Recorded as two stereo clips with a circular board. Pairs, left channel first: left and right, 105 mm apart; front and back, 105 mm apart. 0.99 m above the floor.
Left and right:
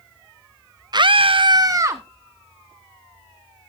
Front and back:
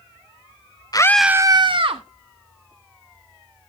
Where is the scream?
45° right, 0.6 m; by 2.0 s 155° right, 1.3 m.